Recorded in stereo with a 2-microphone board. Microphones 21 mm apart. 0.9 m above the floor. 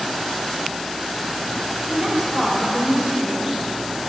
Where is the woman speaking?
40° right (ahead or behind), 4.5 m.